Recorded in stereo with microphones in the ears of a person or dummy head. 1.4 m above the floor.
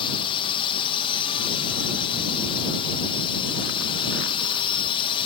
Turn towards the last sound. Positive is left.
turn(degrees=30)  # may be behind; listen again after turning